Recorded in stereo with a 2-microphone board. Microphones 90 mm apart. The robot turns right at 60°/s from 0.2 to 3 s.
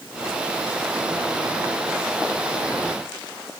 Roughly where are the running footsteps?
I don't hear running footsteps.